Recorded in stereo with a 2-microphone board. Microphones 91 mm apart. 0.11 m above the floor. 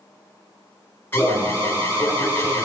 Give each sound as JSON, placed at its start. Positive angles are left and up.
{"t": 1.1, "sound": "an alarm", "side_deg": 20, "distance_m": 2.5}